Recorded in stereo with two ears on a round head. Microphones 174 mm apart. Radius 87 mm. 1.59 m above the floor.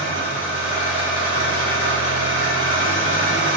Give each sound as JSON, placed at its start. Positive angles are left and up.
{"t": 0.0, "sound": "an engine running", "side_deg": 40, "distance_m": 3.5}